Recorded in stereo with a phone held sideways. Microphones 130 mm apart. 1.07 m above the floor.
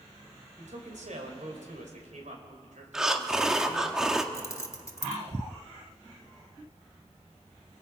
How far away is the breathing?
About 1.2 m.